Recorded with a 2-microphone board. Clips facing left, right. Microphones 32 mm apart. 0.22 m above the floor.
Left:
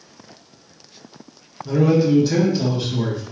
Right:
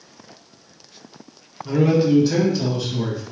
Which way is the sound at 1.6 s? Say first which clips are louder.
Left 1 dB; 30° right (ahead or behind).